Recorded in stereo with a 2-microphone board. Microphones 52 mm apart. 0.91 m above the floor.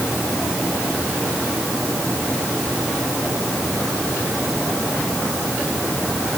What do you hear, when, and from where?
Only background noise.